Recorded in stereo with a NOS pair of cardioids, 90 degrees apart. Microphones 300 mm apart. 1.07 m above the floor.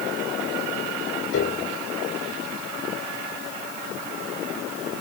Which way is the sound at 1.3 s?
50° left.